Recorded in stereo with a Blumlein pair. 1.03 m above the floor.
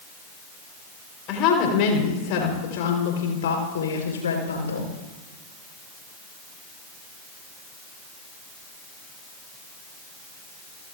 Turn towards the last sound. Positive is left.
turn(degrees=75)